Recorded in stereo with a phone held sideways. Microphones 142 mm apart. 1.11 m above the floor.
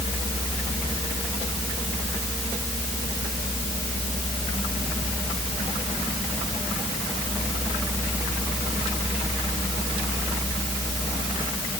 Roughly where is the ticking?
I don't hear ticking.